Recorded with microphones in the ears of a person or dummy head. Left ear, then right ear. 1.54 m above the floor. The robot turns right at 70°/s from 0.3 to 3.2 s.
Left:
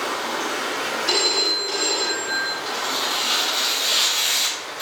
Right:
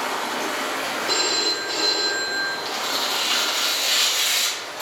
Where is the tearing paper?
40° right, 1.9 m; by 4.8 s straight ahead, 1.9 m.